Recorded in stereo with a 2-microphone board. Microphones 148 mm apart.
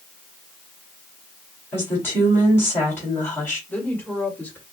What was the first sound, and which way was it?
A woman speaking, 15° left (ahead or behind).